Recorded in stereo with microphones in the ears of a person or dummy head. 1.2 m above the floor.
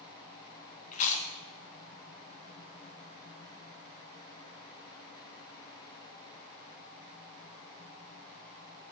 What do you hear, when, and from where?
0.9 s chewing: 40° left (ahead or behind), 0.9 m